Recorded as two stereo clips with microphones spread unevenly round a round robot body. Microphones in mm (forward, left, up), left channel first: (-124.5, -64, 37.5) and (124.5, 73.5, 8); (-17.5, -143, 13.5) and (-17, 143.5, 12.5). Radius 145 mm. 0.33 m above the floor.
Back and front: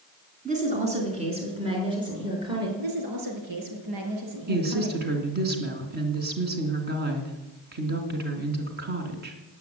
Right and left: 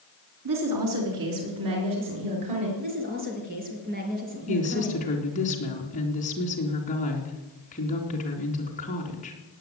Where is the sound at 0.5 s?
90° left, 4 m; by 2.7 s 105° left, 7 m.